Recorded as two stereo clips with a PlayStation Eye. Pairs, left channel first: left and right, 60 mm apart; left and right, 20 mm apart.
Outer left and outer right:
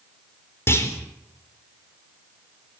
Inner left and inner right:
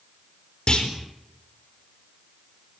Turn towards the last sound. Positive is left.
turn(degrees=45)  # may be behind; listen again after turning